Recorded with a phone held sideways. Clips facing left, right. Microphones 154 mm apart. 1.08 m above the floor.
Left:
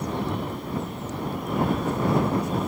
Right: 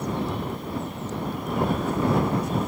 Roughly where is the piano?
I don't hear a piano.